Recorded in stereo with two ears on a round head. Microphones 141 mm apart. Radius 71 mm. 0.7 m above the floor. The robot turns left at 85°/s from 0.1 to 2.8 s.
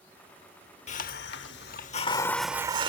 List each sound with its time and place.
0.9 s a hiss: 135° left; by 2.9 s 30° right